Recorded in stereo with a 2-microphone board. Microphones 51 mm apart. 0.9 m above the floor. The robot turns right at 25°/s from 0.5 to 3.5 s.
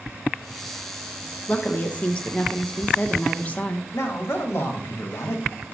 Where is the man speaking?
55° left (ahead or behind), 1.4 m.